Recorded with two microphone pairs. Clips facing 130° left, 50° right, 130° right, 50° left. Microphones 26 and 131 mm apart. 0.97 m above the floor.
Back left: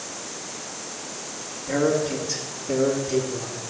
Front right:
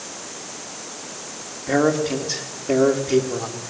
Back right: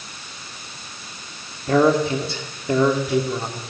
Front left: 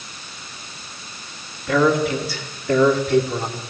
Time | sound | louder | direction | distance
1.7 | a man speaking | front right 3 dB, back right 1 dB | 80° right | 3.5 m